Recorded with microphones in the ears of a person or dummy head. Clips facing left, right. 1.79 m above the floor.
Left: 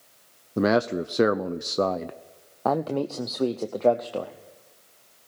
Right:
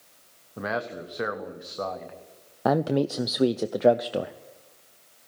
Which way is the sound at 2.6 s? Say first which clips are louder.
Right 2 dB; 15° right (ahead or behind).